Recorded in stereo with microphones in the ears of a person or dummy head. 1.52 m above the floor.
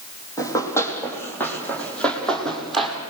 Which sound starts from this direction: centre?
Running footsteps, at 0.4 s.